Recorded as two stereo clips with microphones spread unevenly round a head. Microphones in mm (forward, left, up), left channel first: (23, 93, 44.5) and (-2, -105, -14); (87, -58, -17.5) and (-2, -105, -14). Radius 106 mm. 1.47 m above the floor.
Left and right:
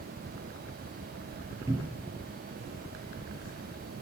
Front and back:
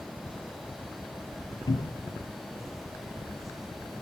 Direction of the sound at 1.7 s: 20° right.